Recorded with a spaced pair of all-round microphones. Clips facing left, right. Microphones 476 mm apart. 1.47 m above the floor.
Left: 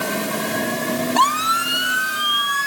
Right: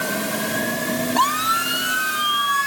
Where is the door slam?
No door slam in this recording.